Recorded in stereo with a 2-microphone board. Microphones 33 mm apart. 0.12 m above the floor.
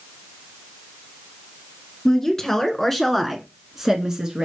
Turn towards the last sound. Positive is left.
turn(degrees=-25)  # may be behind; listen again after turning